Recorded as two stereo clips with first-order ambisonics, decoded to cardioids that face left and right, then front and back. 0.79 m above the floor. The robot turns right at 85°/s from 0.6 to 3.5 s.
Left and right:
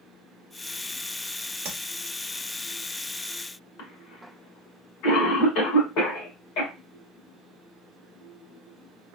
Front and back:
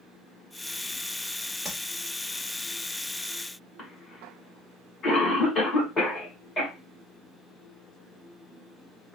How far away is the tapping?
About 1.2 m.